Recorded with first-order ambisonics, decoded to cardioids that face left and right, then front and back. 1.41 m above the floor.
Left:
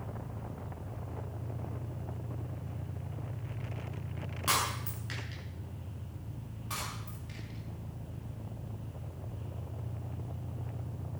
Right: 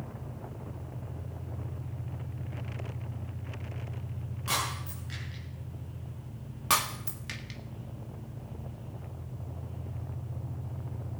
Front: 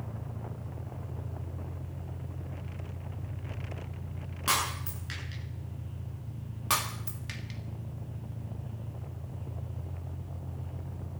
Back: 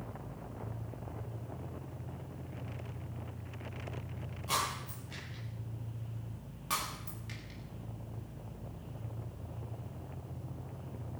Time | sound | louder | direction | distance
0.0 | an engine running | even, front 2 dB | 15° left | 7.5 m
4.5 | breaking glass | left 1 dB, front 5 dB | 25° left | 8 m
6.7 | breaking glass | right 12 dB, front 6 dB | 60° right | 1.8 m